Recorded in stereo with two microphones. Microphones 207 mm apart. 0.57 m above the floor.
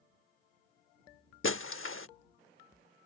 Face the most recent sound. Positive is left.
turn(degrees=85)